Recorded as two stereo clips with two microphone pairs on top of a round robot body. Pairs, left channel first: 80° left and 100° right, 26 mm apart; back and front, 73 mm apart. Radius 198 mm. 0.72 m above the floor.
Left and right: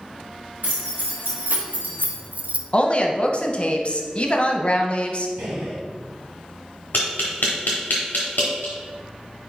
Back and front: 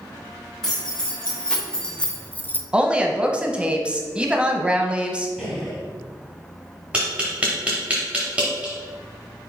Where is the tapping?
65° left, 0.5 m.